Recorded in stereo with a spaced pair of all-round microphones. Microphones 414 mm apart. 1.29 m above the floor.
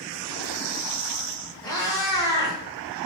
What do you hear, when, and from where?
1.6 s a cat meowing: 10° left (ahead or behind), 1.2 m